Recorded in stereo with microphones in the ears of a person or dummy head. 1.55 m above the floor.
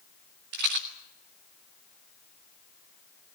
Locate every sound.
0.5 s a rattle: 60° right (ahead or behind), 1.9 m